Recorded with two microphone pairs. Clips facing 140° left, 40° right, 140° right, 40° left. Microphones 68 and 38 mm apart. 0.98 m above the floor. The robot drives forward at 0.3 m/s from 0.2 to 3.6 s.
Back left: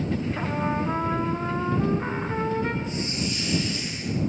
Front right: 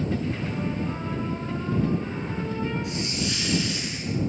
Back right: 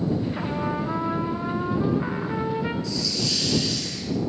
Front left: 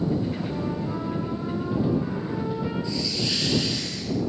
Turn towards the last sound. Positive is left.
turn(degrees=-30)